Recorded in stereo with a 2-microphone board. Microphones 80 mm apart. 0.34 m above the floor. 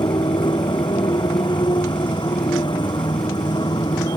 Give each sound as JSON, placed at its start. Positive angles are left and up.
{"t": 0.0, "sound": "a motorcycle", "side_deg": 70}